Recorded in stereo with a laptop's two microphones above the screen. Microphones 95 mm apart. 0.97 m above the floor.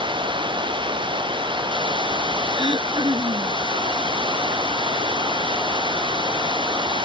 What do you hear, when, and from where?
0.0 s running water: 60° right (ahead or behind)
2.5 s throat clearing: 55° right (ahead or behind)